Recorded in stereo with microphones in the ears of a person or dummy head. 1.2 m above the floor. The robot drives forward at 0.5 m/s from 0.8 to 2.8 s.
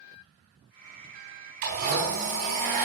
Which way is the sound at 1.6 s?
50° right (ahead or behind).